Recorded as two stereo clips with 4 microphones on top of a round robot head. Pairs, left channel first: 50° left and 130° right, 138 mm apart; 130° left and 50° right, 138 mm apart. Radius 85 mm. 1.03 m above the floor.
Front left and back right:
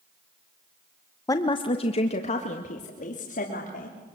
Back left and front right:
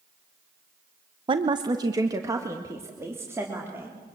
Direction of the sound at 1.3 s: 10° right.